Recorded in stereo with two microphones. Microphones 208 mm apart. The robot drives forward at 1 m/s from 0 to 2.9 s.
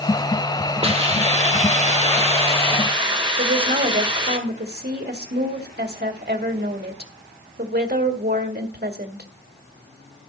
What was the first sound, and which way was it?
A hiss, 30° right (ahead or behind).